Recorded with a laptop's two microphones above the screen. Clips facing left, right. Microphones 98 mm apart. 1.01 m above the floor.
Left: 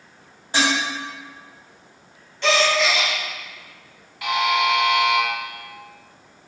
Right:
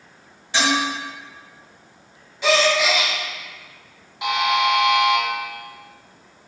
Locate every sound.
0.5 s dishes clattering: 40° left (ahead or behind), 1.4 m
2.4 s a gasp: 5° right (ahead or behind), 0.7 m
4.2 s a buzzer: 20° right (ahead or behind), 0.5 m